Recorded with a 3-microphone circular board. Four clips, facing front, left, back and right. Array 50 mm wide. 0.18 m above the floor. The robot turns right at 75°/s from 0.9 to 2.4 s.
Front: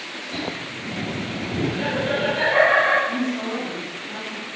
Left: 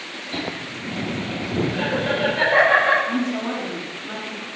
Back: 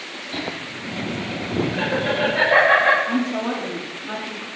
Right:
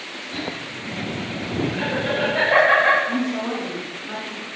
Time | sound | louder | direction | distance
0.3 | laughter | left 1 dB, back 1 dB | 115° left | 4 m
3.1 | a woman speaking | even, back 2 dB | straight behind | 4 m